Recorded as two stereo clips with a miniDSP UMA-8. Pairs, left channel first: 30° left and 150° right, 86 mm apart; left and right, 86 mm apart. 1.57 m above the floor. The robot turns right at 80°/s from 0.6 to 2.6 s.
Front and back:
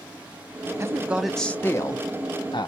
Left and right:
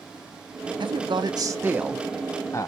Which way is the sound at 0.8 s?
100° right.